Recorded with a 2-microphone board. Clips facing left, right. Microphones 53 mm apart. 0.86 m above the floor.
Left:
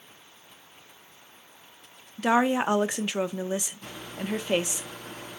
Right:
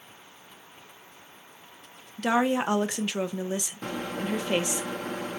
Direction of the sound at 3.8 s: 60° right (ahead or behind).